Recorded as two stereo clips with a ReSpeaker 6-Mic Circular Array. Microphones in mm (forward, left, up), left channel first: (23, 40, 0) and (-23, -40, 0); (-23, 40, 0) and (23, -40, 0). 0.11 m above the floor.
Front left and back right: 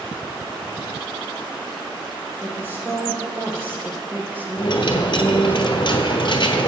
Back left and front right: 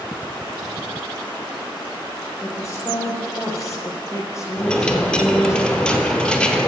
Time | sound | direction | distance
2.4 | a woman speaking | 175° left | 3.5 m
4.6 | a dropped coin | 40° left | 0.9 m